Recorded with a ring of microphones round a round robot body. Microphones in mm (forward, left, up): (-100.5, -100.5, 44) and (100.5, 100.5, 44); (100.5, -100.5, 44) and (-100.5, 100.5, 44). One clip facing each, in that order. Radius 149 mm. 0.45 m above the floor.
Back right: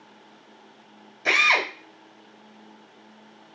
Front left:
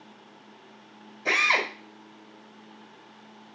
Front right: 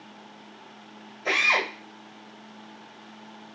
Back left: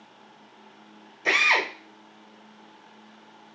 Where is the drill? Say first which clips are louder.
Back right 1 dB, back left 1 dB; 175° left, 1.6 m.